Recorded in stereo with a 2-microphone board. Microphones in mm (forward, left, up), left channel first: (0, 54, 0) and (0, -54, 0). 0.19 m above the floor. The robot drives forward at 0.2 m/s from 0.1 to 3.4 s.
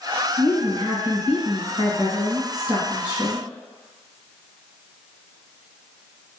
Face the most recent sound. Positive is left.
turn(degrees=-40)  # may be behind; listen again after turning